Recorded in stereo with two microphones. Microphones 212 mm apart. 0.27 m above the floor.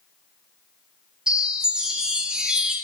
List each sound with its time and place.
1.3 s a chime: 5° right (ahead or behind), 1.9 m